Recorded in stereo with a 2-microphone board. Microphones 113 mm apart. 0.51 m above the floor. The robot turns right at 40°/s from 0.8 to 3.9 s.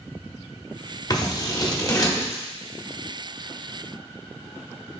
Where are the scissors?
35° left (ahead or behind), 0.8 m; by 2.4 s 25° left (ahead or behind), 0.8 m.